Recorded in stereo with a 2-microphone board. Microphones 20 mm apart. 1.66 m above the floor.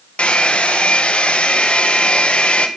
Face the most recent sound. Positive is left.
turn(degrees=75)  # may be behind; listen again after turning